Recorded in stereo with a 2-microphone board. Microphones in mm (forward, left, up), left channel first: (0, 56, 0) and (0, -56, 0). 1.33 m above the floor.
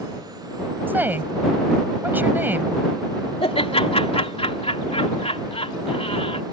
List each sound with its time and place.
0.9 s a woman speaking: 15° right (ahead or behind)
3.4 s laughter: 65° left (ahead or behind)